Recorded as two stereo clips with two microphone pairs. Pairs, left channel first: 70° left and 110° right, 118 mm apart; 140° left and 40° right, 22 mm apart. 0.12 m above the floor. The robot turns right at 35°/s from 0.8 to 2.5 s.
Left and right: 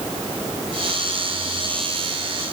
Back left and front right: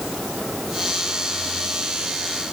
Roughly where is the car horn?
No car horn in this recording.